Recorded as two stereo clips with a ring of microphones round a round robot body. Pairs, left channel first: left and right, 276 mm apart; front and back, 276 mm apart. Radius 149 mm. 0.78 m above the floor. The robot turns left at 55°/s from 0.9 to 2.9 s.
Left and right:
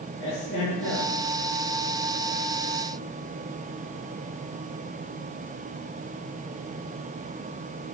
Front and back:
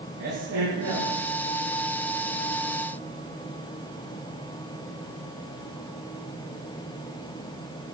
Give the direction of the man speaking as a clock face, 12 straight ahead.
7 o'clock.